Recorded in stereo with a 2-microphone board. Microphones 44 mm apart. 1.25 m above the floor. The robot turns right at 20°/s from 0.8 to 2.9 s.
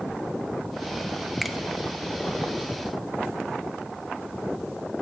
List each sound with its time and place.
1.4 s a finger snap: centre (ahead or behind), 0.9 m